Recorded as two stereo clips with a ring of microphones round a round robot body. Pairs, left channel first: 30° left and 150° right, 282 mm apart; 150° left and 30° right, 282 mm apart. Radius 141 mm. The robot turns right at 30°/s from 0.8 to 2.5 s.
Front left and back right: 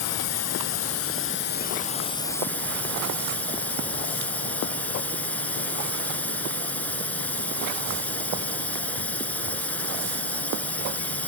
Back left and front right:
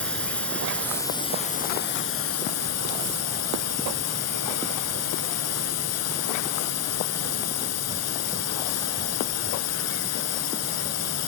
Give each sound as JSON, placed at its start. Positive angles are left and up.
{"t": 0.0, "sound": "a drone", "azimuth_deg": 65}